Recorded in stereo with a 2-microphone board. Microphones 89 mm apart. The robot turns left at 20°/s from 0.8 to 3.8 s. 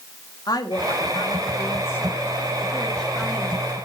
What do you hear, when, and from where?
0.5 s a woman speaking: 55° left, 1.9 m; by 3.6 s 5° right, 1.9 m